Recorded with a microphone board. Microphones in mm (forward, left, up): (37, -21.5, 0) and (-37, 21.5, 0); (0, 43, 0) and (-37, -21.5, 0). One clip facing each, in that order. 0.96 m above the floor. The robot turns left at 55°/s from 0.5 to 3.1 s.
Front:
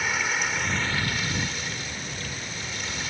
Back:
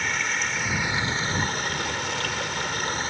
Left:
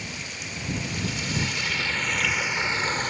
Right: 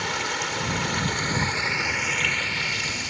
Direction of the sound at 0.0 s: 115° right.